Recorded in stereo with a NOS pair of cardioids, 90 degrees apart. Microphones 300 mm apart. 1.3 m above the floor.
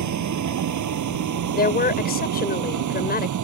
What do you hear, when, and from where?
0.0 s a vehicle: 65° right; by 3.4 s 70° right
1.5 s a woman speaking: 30° left